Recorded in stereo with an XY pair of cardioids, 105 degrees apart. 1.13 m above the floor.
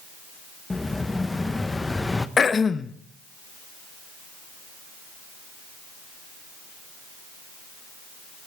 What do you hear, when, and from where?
0.7 s an explosion: 15° left, 0.9 m
2.4 s throat clearing: 35° left, 0.9 m